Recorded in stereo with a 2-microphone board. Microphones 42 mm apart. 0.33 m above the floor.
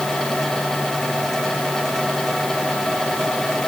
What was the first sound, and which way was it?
Only background noise.